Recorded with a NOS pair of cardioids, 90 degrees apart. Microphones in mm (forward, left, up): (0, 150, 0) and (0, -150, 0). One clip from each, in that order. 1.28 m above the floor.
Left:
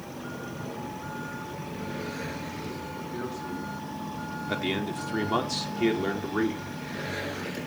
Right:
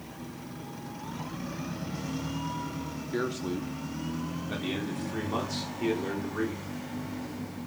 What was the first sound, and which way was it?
A man speaking, 60° right.